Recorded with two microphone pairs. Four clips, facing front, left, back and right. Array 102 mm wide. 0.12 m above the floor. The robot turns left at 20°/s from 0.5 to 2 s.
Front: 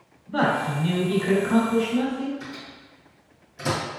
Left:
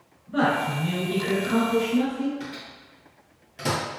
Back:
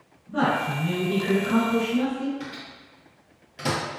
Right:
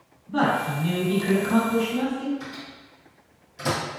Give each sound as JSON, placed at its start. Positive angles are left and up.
{"t": 0.3, "sound": "a man speaking", "azimuth_deg": 10, "distance_m": 1.2}
{"t": 2.4, "sound": "a microwave", "azimuth_deg": 145, "distance_m": 1.8}